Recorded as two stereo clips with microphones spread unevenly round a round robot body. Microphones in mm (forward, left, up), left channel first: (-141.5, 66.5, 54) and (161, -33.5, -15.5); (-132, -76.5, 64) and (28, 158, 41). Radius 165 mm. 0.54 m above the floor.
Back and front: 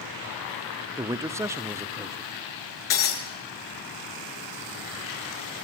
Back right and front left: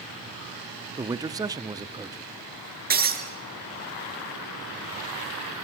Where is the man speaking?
10° left, 0.7 m.